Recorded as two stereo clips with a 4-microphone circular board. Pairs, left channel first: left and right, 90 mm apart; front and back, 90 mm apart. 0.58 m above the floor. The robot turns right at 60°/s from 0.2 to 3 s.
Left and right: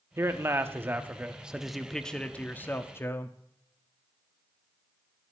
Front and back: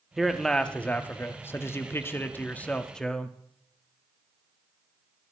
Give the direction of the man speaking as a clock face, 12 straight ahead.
3 o'clock.